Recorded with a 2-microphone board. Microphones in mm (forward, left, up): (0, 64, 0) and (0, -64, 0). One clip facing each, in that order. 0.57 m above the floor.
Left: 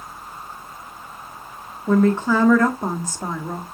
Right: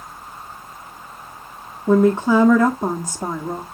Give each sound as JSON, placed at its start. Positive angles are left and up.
{"t": 1.9, "sound": "a woman speaking", "side_deg": -15, "distance_m": 1.3}